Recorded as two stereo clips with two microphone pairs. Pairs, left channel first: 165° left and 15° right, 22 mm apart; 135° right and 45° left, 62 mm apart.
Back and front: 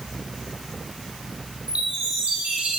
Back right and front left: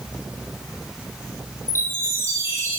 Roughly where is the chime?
Ahead.